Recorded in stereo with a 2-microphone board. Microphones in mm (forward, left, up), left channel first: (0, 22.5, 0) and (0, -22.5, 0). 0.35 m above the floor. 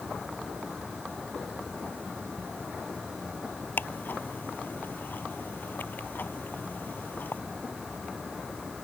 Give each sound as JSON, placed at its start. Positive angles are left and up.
{"t": 3.8, "sound": "ticking", "side_deg": 50}